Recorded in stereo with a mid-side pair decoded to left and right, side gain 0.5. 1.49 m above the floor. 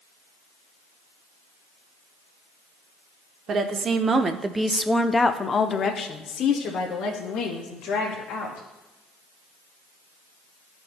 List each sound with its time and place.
3.5 s a woman speaking: 50° right, 1.0 m; by 8.7 s 75° left, 2 m